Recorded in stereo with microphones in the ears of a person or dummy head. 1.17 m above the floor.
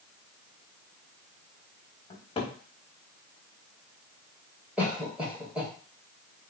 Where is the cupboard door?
30° left (ahead or behind), 0.7 m.